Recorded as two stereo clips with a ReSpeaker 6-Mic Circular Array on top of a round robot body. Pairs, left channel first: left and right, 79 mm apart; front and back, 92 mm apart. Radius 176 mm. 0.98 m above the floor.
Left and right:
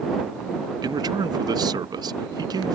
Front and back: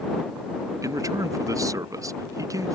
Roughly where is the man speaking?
Behind right.